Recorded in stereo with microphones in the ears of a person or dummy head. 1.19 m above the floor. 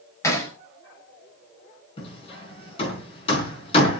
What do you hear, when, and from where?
0.2 s hammering: 15° left (ahead or behind), 7.5 m
2.0 s hammering: 30° left (ahead or behind), 4.5 m